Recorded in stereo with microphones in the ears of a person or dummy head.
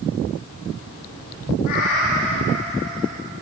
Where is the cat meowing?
65° left (ahead or behind), 2 m; by 3.1 s 70° left (ahead or behind), 4 m.